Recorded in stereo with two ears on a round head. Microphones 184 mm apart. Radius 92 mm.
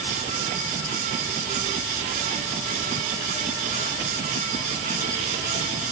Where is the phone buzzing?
I don't hear a phone buzzing.